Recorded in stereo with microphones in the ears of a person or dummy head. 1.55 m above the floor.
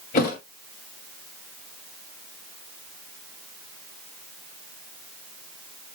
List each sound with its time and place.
0.1 s a thud: 40° left (ahead or behind), 2 m